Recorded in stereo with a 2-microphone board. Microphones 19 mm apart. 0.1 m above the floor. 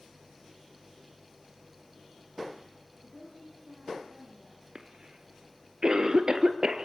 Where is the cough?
40° right (ahead or behind), 1.9 m.